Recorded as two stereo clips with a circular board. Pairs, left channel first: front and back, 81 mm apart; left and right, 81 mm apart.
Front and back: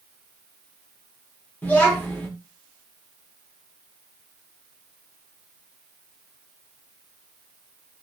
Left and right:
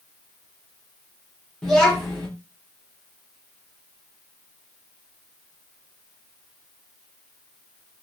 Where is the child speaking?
15° left, 1.0 m.